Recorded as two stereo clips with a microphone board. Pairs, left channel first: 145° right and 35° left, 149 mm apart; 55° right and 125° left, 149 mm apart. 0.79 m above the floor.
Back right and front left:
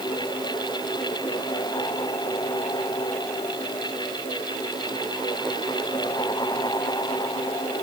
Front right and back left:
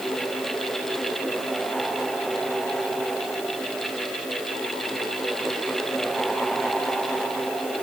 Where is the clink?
No clink in this recording.